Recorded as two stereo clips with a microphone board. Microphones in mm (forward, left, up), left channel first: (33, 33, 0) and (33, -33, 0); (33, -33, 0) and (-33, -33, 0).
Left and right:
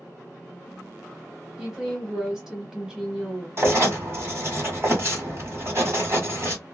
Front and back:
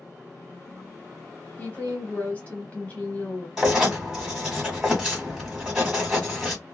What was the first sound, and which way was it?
A woman speaking, 20° right.